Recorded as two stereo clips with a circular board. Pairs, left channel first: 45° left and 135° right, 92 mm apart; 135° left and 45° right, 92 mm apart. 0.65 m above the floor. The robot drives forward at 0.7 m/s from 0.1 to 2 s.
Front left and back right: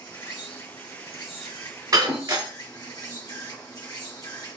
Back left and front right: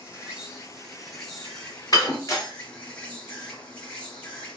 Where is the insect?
35° left, 2.5 m; by 4.6 s 70° left, 1.6 m.